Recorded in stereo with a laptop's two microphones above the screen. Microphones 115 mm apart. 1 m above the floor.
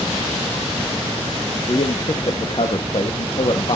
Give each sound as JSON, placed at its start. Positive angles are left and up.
{"t": 1.7, "sound": "a man speaking", "side_deg": 55, "distance_m": 1.1}